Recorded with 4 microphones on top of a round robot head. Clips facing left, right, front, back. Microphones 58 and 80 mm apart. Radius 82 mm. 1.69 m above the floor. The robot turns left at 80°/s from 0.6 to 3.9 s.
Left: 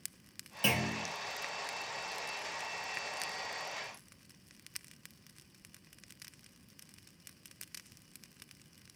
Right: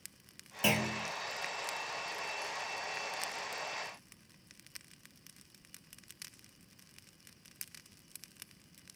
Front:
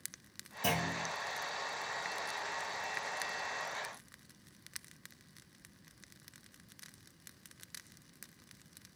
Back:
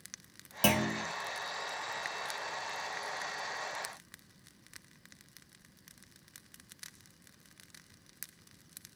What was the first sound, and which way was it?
A clunk, 170° right.